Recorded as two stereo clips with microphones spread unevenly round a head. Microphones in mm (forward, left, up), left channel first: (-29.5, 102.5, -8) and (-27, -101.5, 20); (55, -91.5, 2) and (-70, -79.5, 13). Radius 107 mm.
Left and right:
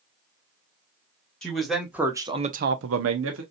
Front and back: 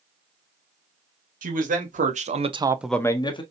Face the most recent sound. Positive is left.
turn(degrees=-55)